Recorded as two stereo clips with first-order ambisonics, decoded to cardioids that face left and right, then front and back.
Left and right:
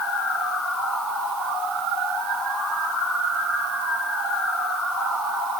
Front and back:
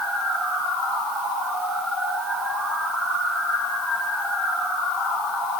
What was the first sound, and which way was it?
Only background noise.